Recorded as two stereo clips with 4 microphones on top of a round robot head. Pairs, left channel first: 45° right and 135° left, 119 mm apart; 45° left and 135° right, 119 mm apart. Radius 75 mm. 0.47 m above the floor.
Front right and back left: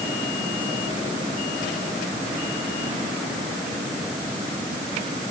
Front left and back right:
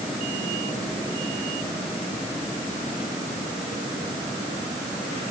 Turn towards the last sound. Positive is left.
No sound to turn to.